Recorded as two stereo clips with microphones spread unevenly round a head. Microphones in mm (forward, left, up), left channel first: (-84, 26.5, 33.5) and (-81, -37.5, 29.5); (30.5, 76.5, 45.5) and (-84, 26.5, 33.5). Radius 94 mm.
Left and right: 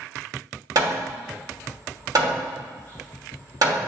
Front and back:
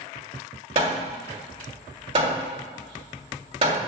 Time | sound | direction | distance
0.8 | hammering | 110° right | 2.5 m